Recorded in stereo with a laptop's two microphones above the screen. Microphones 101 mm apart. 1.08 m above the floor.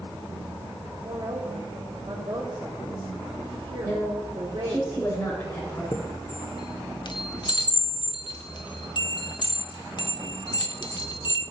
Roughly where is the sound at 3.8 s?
Centre.